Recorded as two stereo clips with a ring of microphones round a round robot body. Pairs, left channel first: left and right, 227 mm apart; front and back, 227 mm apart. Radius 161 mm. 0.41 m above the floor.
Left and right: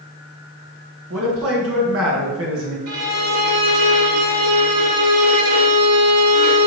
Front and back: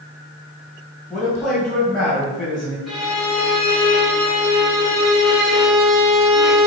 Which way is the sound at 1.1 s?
90° right.